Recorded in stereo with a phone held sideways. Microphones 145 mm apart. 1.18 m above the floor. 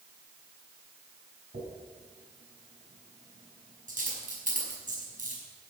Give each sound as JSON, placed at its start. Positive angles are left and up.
{"t": 1.5, "sound": "a dropped coin", "side_deg": -70, "distance_m": 5.0}